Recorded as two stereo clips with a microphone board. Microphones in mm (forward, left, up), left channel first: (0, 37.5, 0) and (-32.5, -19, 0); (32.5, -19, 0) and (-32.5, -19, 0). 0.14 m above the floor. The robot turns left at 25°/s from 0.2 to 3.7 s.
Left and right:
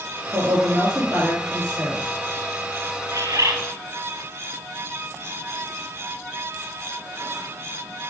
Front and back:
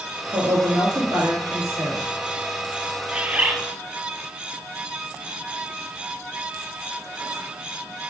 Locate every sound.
0.3 s a woman speaking: 165° right, 3 m; by 2.0 s 155° left, 3 m
3.1 s a bird: 105° right, 0.7 m; by 3.6 s 120° right, 0.7 m